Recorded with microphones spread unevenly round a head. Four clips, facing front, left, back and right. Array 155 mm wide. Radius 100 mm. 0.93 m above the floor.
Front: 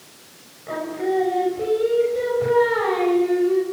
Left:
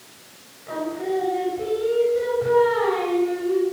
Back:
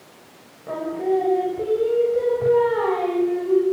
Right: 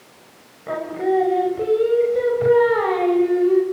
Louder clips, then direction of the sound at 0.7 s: Right 5 dB, back 1 dB; 120° right.